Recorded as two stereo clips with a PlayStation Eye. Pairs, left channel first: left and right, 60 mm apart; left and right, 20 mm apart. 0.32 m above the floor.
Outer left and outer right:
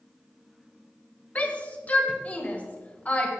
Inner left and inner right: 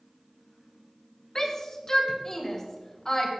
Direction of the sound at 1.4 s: 25° left (ahead or behind).